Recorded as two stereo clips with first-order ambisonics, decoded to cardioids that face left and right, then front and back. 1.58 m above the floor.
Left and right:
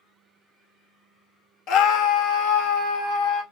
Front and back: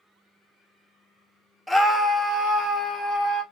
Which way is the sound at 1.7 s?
85° left.